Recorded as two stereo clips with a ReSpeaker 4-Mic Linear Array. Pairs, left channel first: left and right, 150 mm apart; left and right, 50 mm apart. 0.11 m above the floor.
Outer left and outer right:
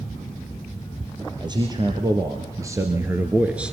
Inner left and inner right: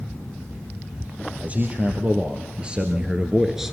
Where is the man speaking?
30° right (ahead or behind), 2.5 m; by 3.7 s 5° right (ahead or behind), 1.3 m.